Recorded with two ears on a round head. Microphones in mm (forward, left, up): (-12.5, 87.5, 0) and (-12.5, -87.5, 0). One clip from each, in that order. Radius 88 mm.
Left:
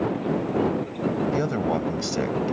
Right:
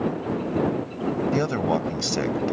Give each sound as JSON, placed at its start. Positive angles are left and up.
{"t": 1.3, "sound": "a man speaking", "side_deg": -25}